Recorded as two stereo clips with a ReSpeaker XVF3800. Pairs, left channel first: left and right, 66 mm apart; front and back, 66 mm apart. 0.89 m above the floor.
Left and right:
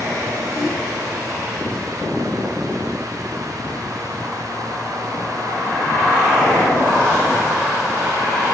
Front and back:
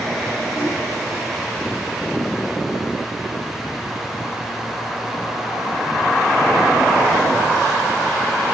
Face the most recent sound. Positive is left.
turn(degrees=120)